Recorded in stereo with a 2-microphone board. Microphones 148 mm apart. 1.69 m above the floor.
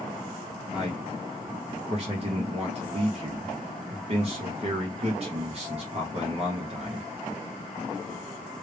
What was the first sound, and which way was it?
A man speaking, 45° right (ahead or behind).